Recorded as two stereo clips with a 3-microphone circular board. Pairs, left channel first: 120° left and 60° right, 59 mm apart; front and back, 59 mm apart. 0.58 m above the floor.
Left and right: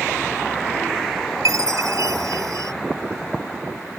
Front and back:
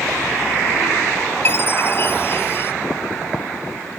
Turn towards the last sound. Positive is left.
turn(degrees=-45)